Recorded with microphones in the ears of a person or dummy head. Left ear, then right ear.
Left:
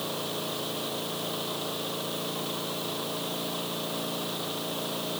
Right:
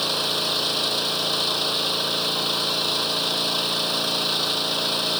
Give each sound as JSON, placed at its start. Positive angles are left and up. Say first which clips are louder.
{"t": 0.0, "sound": "an engine running", "louder": "right 10 dB", "side_deg": -70}